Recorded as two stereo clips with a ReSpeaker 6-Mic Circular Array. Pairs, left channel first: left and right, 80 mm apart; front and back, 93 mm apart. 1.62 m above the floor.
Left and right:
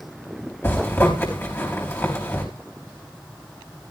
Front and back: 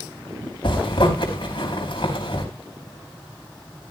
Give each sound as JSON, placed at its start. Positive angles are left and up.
{"t": 0.6, "sound": "a zipper", "azimuth_deg": 30, "distance_m": 4.5}